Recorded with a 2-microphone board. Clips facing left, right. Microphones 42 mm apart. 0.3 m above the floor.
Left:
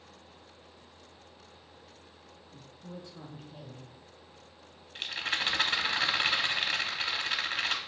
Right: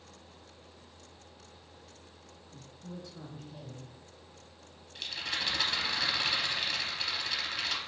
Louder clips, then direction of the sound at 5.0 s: Left 3 dB; 45° left (ahead or behind).